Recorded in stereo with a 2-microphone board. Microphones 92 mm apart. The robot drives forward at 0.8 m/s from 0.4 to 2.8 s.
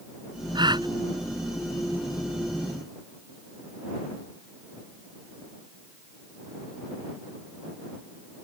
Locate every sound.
0.6 s a gasp: 60° right (ahead or behind)